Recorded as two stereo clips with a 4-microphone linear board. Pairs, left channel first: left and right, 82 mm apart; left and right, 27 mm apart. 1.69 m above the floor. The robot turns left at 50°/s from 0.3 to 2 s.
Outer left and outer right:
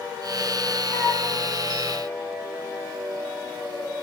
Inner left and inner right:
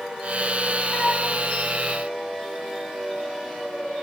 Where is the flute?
40° left (ahead or behind), 1.2 m.